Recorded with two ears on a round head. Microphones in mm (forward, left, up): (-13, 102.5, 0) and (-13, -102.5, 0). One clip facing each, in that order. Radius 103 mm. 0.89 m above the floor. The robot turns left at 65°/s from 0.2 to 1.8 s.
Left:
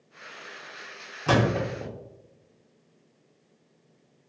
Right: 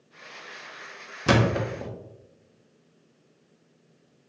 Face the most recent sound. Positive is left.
turn(degrees=0)  # may be behind; listen again after turning